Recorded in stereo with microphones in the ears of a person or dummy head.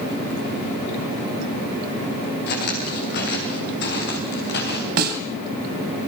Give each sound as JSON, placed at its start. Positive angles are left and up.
{"t": 2.5, "sound": "footsteps", "side_deg": 55, "distance_m": 6.0}
{"t": 5.0, "sound": "a snare drum", "side_deg": -55, "distance_m": 3.5}